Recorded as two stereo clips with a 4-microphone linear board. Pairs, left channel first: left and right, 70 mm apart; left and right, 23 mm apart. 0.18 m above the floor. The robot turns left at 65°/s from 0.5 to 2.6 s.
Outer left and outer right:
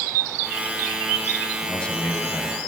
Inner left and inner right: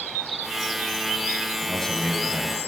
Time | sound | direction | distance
1.6 | a man speaking | 10° left (ahead or behind) | 1.1 m